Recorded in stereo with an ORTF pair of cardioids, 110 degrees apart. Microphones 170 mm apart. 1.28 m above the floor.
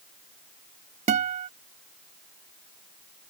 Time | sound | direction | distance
1.1 | a guitar | 45° right | ?